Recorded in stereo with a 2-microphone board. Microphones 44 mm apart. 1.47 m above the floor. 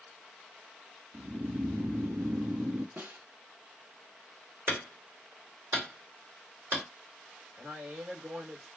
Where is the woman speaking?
50° right (ahead or behind), 2.5 m.